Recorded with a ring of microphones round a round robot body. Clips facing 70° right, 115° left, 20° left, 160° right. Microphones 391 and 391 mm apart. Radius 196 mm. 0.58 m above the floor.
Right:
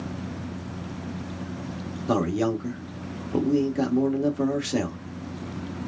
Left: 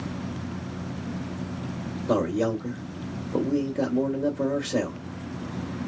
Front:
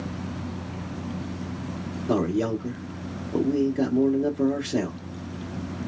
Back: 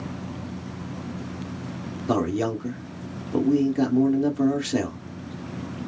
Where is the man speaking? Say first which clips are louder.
Even, even; 110° right, 1.6 m.